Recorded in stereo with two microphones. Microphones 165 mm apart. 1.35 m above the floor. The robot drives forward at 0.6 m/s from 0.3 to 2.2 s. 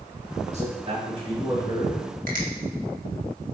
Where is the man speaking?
45° right (ahead or behind), 2.0 m; by 2.1 s 30° right (ahead or behind), 3 m.